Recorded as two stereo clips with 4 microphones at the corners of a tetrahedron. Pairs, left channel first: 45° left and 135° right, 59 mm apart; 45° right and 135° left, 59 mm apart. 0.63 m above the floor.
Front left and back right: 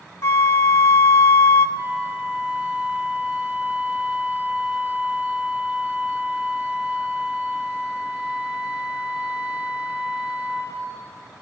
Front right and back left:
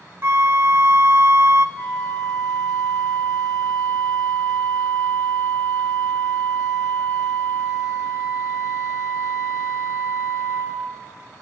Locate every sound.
0.2 s a flute: 85° left, 0.5 m
1.8 s a flute: 80° right, 2.5 m